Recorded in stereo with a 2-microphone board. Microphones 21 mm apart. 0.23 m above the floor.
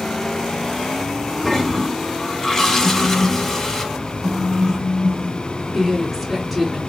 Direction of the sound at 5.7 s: 15° right (ahead or behind).